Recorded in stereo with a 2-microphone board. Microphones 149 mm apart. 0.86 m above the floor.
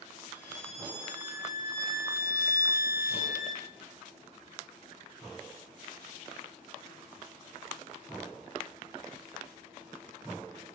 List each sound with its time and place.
0.3 s a violin: 75° left (ahead or behind), 3 m